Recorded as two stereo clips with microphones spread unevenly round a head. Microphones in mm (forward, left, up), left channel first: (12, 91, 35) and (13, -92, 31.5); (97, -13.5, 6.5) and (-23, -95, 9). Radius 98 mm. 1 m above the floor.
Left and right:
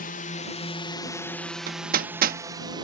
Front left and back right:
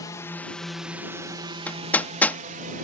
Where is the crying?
I don't hear crying.